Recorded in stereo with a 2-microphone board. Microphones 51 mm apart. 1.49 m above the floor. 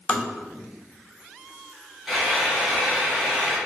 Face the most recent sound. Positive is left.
turn(degrees=-5)  # may be behind; listen again after turning